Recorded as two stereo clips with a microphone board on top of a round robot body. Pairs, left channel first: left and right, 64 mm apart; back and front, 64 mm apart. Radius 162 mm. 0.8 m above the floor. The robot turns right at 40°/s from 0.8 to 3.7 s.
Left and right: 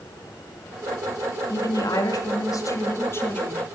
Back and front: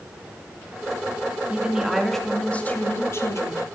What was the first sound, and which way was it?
A woman speaking, 70° left.